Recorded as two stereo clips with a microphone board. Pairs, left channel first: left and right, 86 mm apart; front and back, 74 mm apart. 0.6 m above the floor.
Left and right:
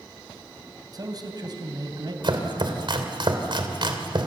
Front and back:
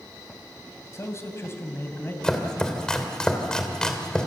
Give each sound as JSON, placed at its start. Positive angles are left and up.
{"t": 0.9, "sound": "a man speaking", "azimuth_deg": -50, "distance_m": 3.5}
{"t": 2.2, "sound": "chopping", "azimuth_deg": -80, "distance_m": 2.5}